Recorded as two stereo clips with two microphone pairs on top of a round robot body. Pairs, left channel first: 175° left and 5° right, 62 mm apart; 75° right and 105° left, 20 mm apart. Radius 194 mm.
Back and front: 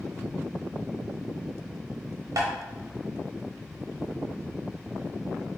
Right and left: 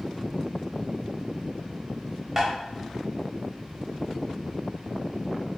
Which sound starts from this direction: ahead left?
Tapping, at 2.4 s.